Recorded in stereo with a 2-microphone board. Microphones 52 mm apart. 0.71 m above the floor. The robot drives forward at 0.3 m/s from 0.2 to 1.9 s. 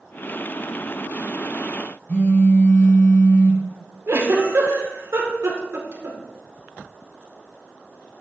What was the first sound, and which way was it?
A phone buzzing, 35° left (ahead or behind).